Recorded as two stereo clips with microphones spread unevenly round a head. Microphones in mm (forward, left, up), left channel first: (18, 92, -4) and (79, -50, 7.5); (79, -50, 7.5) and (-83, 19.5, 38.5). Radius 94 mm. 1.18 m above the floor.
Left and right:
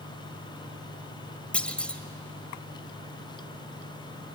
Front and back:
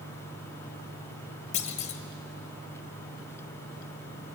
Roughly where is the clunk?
Ahead left.